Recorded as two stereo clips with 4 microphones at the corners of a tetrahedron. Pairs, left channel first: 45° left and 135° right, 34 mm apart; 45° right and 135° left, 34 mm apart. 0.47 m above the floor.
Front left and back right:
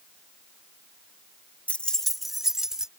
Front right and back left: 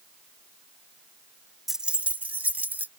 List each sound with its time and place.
1.7 s keys jangling: 55° left; by 2.9 s 150° left